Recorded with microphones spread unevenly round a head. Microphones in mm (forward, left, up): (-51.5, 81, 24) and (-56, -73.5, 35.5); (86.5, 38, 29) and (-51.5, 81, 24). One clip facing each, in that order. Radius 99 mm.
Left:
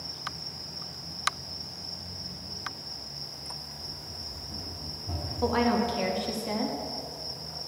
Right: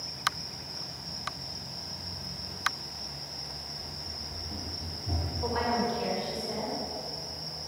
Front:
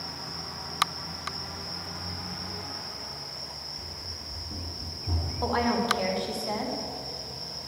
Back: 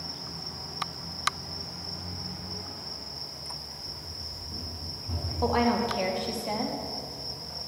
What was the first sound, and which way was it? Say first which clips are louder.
Running footsteps: right 1 dB, front 1 dB; 45° right.